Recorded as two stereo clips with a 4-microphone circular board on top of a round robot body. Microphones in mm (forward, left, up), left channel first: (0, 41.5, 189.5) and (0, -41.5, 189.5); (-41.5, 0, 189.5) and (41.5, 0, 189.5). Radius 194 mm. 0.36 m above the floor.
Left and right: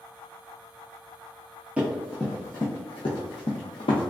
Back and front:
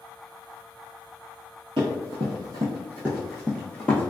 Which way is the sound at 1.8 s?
15° right.